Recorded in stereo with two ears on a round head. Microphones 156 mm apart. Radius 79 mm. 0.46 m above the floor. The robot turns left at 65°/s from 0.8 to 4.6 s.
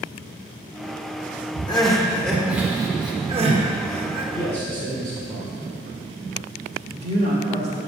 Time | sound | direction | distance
1.7 | crying | 25° left (ahead or behind) | 0.8 m
4.3 | a man speaking | 30° right (ahead or behind) | 1.7 m
6.9 | a woman speaking | 35° right (ahead or behind) | 1.1 m